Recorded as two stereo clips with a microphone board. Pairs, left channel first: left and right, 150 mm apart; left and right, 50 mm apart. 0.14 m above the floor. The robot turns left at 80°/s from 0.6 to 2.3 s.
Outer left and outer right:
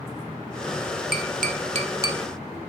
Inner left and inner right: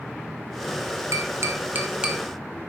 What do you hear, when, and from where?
1.1 s tapping: 80° right, 0.9 m; by 2.2 s 10° right (ahead or behind), 0.9 m